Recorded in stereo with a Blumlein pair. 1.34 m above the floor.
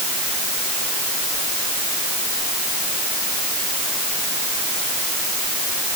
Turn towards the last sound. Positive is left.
No sound to turn to.